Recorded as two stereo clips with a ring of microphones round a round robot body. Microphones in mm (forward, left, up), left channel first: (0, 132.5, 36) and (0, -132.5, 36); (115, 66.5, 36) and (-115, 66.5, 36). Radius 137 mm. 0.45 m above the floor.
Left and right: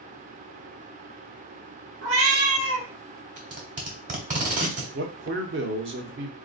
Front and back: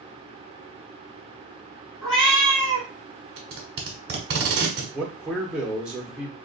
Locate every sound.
2.0 s a cat meowing: 50° right, 1.1 m
3.4 s tape being pulled: 145° right, 1.3 m
4.9 s a man speaking: 95° right, 0.9 m